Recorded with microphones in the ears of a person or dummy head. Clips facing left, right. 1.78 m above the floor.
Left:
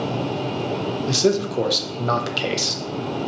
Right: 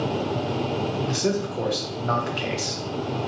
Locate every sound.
1.1 s a man speaking: 55° left (ahead or behind), 0.5 m